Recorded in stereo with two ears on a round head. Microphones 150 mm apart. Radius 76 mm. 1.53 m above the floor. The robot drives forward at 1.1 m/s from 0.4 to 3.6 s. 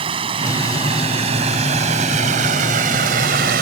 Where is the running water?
30° right (ahead or behind); by 3.6 s 55° right (ahead or behind).